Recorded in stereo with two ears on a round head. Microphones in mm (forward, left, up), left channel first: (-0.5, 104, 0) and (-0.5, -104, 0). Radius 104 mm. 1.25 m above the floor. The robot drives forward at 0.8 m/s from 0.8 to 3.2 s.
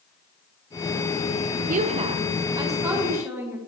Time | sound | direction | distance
1.7 | a woman speaking | 35° right (ahead or behind) | 0.5 m